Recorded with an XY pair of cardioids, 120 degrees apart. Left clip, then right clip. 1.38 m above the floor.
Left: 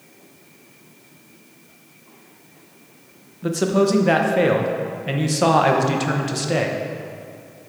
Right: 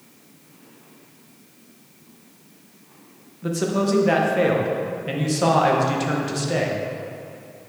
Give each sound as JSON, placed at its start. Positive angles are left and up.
{"t": 3.4, "sound": "a man speaking", "azimuth_deg": 20, "distance_m": 0.9}